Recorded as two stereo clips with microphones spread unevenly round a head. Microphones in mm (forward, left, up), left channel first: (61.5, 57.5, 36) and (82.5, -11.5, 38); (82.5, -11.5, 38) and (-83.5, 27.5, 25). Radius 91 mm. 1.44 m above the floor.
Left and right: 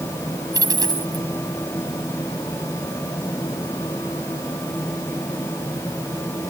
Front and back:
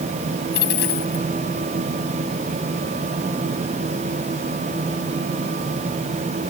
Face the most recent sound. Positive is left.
turn(degrees=-45)